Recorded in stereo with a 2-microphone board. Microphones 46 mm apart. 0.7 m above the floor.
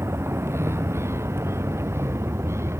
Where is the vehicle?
70° right (ahead or behind).